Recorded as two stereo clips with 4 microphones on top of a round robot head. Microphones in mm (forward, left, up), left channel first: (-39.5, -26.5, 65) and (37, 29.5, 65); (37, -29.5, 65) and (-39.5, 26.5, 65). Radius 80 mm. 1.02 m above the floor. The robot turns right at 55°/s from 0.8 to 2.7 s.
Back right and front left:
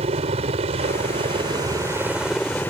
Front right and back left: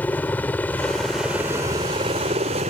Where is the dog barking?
I don't hear a dog barking.